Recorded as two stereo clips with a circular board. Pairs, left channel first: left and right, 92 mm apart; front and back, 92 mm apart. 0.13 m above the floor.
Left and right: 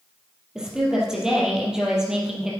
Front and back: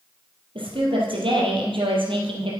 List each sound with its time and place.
0.6 s a woman speaking: 175° right, 4 m